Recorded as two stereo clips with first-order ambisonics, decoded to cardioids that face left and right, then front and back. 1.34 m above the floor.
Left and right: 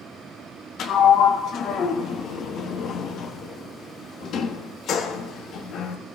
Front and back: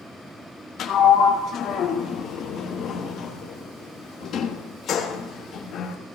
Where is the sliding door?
45° left, 1.0 m.